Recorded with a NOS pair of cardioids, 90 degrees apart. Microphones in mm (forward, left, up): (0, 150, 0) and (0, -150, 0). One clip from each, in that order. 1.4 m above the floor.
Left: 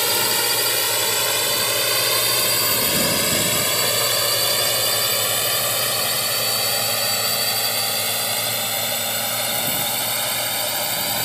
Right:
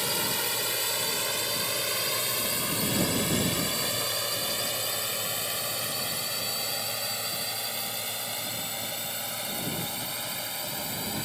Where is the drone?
60° left; by 11.3 s 70° left.